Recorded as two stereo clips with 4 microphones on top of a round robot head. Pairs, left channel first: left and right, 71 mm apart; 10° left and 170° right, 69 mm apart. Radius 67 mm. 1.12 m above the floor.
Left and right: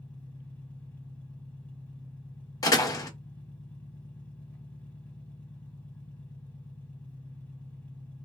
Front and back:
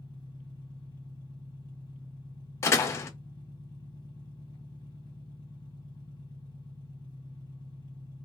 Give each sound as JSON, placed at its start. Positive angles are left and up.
{"t": 0.0, "sound": "an engine running", "azimuth_deg": 25, "distance_m": 1.2}
{"t": 2.6, "sound": "a door slam", "azimuth_deg": 55, "distance_m": 0.5}